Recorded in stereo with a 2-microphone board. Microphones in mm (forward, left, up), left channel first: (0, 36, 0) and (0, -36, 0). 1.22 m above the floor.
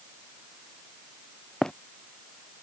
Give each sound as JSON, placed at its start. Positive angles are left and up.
{"t": 1.6, "sound": "running footsteps", "side_deg": 5}